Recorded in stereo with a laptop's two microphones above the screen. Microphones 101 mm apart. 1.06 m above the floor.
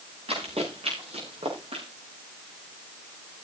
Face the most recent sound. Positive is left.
turn(degrees=-80)